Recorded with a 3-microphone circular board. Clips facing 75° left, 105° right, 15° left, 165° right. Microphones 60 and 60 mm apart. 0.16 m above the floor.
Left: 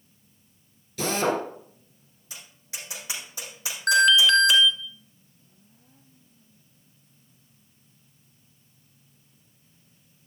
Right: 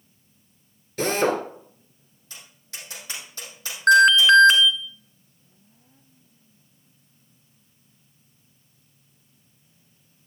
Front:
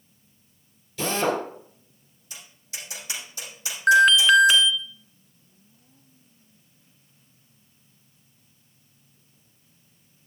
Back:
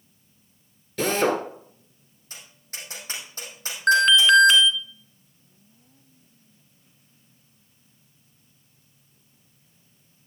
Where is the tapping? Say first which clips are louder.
Even, even; 150° left, 6 m.